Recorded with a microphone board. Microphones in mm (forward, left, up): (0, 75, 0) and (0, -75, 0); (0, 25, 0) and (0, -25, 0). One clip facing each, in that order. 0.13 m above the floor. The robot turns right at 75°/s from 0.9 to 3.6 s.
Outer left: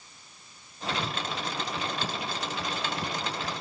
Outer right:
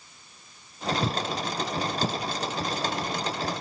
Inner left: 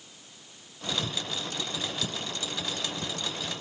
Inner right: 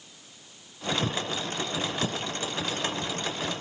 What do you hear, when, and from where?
1.0 s footsteps: 70° right (ahead or behind), 0.8 m; by 3.6 s 70° left (ahead or behind), 3 m